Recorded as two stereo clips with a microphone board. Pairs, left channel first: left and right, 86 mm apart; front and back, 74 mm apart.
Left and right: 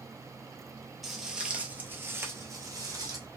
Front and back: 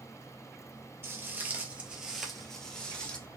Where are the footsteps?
Straight behind, 0.9 m; by 3.2 s 70° right, 1.2 m.